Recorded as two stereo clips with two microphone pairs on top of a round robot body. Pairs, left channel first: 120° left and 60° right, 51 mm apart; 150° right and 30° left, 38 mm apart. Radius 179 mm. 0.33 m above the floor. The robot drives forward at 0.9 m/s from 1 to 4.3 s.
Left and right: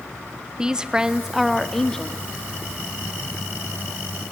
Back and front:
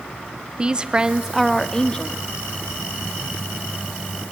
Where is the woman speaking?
5° right, 1.0 m; by 2.2 s 175° right, 1.2 m.